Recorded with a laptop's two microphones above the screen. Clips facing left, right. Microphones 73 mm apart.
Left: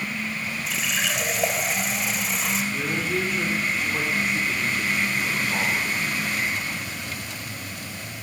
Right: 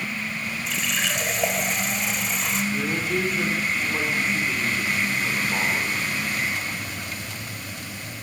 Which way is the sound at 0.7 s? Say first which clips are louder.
Even; centre (ahead or behind).